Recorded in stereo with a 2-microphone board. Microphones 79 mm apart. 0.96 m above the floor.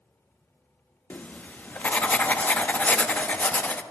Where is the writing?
20° left (ahead or behind), 0.6 m.